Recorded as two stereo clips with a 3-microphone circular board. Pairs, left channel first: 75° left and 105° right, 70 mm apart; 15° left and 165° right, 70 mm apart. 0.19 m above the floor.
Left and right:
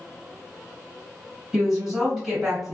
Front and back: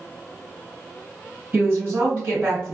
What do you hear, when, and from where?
1.5 s a woman speaking: straight behind, 1.5 m